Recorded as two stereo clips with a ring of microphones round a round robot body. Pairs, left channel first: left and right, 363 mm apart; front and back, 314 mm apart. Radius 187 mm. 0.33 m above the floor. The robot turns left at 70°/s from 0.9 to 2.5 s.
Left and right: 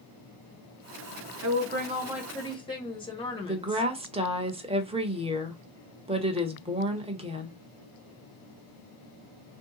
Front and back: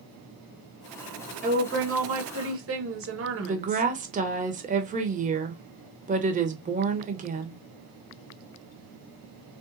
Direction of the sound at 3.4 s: 145° right.